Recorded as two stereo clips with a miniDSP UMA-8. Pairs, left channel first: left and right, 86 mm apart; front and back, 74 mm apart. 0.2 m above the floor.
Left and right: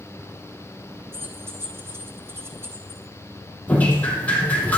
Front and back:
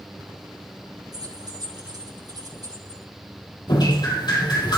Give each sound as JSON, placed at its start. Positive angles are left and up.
{"t": 1.1, "sound": "keys jangling", "azimuth_deg": -150, "distance_m": 6.5}
{"t": 3.7, "sound": "dripping", "azimuth_deg": 20, "distance_m": 6.0}